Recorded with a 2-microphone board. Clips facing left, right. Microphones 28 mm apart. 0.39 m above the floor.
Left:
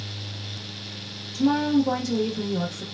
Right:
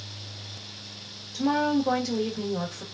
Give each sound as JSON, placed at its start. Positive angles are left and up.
{"t": 1.3, "sound": "a woman speaking", "side_deg": -25, "distance_m": 1.1}